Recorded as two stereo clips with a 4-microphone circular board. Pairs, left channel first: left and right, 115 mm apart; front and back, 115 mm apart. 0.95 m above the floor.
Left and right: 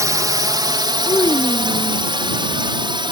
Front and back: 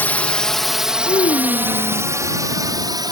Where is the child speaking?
30° left.